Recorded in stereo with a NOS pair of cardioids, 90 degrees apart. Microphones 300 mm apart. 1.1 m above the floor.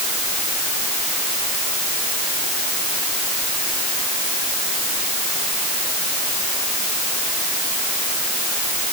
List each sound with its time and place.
Only background noise.